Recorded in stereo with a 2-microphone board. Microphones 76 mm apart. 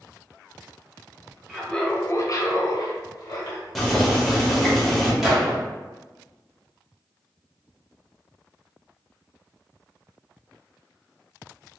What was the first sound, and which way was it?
Laughter, 10° right (ahead or behind).